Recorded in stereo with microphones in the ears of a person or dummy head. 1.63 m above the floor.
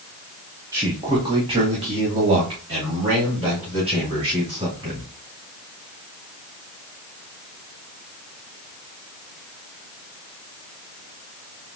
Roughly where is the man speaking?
Centre.